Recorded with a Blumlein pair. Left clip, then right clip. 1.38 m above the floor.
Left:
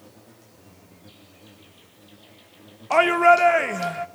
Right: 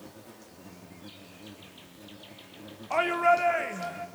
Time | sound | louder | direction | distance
0.0 | an insect | right 2 dB | 15° right | 4 m
2.9 | a shout | left 8 dB | 25° left | 0.9 m